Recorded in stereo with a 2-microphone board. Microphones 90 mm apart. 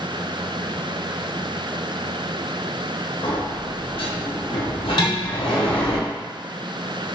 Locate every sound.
3.2 s a sliding door: 65° left (ahead or behind), 1.0 m
5.0 s dishes clattering: 50° left (ahead or behind), 1.3 m